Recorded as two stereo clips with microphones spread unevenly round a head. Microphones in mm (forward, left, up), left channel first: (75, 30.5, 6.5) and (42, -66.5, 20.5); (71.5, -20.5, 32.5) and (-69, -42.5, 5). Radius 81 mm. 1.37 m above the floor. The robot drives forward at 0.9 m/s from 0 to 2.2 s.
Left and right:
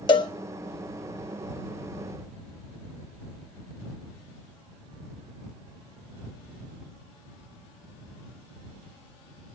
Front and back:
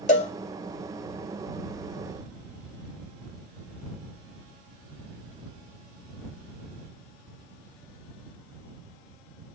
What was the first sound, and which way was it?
A cowbell, 30° left.